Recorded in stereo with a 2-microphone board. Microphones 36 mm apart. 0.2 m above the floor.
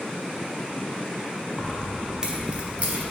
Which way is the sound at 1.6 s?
15° left (ahead or behind).